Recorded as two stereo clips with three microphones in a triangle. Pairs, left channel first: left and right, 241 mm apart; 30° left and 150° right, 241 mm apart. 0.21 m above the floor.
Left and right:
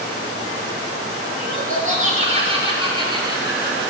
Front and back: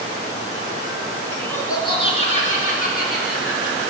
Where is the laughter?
50° right, 2.5 m; by 3.9 s 15° right, 4.5 m.